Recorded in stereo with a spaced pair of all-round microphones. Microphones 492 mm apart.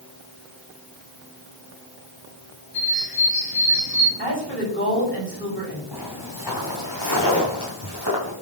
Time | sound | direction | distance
2.7 | a bird | 45° left (ahead or behind) | 4 m
4.2 | a woman speaking | 25° left (ahead or behind) | 6.5 m
5.9 | footsteps | 45° left (ahead or behind) | 4 m